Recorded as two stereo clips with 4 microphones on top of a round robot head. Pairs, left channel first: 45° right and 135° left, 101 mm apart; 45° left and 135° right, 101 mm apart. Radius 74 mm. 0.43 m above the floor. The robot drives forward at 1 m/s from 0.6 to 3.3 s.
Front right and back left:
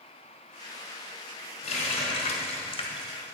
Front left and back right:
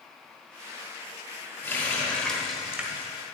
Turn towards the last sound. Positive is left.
turn(degrees=-100)